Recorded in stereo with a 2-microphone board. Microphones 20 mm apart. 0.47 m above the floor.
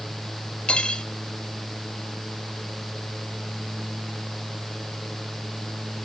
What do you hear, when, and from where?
0.7 s cutlery clinking: 60° left (ahead or behind), 1.1 m